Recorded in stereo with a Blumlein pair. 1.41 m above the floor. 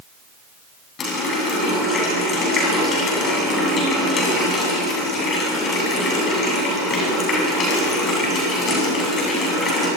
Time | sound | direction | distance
1.0 | a running tap | 25° left | 8.5 m